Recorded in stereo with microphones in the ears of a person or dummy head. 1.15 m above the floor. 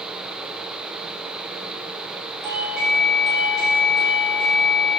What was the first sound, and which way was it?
A doorbell, centre (ahead or behind).